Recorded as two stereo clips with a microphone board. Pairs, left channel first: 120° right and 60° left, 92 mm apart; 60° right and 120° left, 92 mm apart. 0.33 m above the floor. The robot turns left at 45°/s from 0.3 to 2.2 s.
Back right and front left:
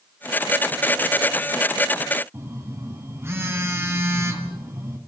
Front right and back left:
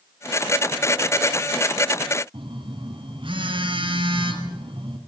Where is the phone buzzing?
120° left, 2.5 m.